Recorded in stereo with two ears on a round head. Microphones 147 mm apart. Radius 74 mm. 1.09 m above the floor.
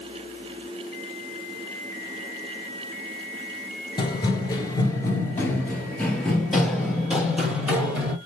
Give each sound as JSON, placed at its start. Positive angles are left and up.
{"t": 4.0, "sound": "running footsteps", "side_deg": 30, "distance_m": 1.1}